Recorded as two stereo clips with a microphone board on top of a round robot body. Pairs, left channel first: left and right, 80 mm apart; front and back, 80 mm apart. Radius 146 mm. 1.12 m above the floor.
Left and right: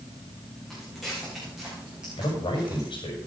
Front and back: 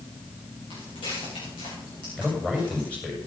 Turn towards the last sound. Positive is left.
turn(degrees=80)